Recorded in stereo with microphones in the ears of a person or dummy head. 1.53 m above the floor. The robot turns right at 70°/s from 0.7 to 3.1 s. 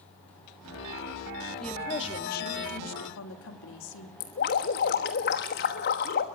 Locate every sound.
1.6 s a woman speaking: 5° left, 2.5 m; by 4.1 s 110° left, 2.5 m
4.2 s dripping: 35° left (ahead or behind), 1.1 m